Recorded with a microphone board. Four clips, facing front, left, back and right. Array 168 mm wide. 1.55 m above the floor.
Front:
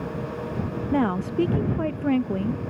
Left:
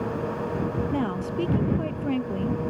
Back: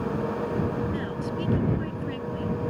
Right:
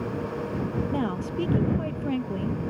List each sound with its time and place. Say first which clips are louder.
0.9 s a woman speaking: left 1 dB, front 7 dB; 5° right